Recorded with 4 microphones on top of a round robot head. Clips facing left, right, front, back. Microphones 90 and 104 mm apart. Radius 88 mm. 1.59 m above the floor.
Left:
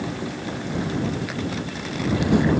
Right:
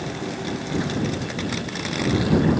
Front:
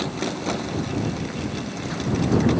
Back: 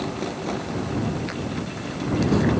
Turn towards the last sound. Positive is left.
No sound to turn to.